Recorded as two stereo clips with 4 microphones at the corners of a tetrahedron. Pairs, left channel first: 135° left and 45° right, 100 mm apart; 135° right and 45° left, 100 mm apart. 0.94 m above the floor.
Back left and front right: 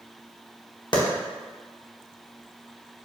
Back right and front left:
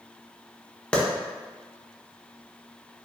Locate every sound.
0.9 s a clap: 145° left, 0.8 m